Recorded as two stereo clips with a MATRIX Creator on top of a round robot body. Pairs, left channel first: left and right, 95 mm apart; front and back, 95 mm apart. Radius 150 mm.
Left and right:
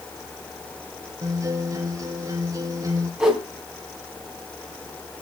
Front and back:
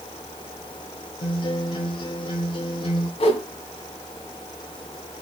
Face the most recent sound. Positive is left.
turn(degrees=-5)